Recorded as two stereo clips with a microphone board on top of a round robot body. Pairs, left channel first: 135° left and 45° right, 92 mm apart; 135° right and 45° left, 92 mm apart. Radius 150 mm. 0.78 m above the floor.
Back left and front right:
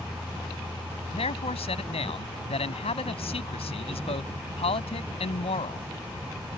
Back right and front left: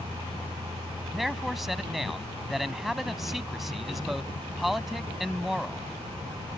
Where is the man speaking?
135° left.